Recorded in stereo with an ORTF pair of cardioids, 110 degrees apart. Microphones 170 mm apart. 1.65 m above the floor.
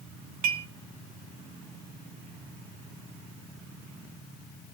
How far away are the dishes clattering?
About 2.5 m.